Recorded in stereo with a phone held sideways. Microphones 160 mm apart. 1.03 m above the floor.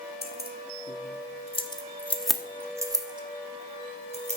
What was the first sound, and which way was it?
Keys jangling, 75° left (ahead or behind).